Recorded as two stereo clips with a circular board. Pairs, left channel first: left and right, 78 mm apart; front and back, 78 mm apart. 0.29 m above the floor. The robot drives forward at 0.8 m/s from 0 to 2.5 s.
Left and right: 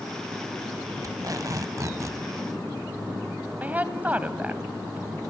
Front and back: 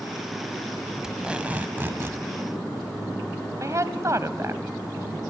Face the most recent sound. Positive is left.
turn(degrees=-150)